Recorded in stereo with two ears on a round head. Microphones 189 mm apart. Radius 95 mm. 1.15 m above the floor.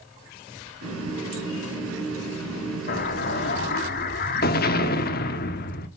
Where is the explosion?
45° left (ahead or behind), 1.0 m.